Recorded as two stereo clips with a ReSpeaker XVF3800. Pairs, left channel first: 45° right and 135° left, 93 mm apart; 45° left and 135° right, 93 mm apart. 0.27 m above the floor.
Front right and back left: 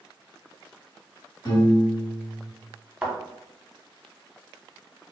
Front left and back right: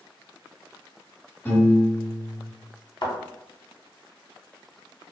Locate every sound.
1.4 s a piano: 15° right, 1.1 m
3.0 s a thud: 65° left, 0.8 m